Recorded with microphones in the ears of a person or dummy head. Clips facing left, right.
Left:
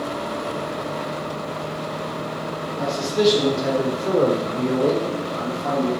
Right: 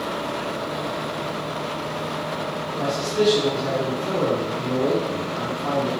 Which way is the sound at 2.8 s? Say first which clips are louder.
Left 2 dB; 20° left (ahead or behind).